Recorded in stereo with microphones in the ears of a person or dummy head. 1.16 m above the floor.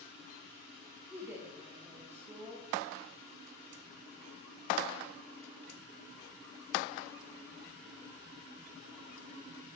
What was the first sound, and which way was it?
A woman speaking, 10° right (ahead or behind).